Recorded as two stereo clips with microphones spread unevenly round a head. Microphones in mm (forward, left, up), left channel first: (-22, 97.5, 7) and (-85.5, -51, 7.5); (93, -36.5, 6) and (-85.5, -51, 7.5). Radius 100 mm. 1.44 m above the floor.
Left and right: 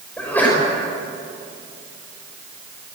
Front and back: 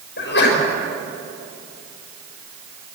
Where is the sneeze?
15° right, 6 m.